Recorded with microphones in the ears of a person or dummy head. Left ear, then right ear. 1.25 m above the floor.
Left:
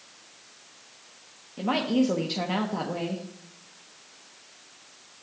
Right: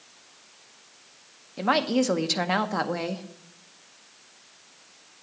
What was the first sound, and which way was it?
A woman speaking, 45° right (ahead or behind).